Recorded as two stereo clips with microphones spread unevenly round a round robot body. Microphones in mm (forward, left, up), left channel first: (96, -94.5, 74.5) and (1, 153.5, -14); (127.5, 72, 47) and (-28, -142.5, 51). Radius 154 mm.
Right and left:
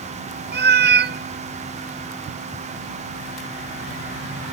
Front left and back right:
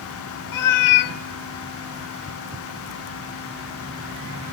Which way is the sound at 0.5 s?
55° left.